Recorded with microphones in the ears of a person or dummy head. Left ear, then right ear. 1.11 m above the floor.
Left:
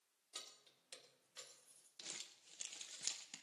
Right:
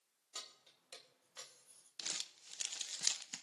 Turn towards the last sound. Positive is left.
turn(degrees=-30)  # may be behind; listen again after turning